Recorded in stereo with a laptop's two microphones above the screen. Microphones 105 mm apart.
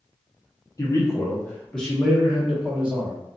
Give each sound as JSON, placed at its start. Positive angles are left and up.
{"t": 0.8, "sound": "a man speaking", "side_deg": 30, "distance_m": 0.8}